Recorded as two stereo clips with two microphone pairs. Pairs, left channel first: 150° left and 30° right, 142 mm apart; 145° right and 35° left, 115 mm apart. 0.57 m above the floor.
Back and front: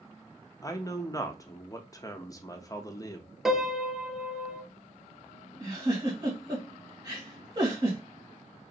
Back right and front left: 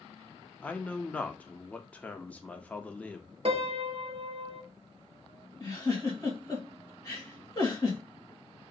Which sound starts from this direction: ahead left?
A piano, at 3.5 s.